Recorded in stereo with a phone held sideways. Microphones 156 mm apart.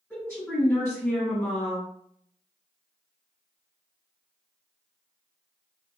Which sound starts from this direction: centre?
A woman speaking, at 0.1 s.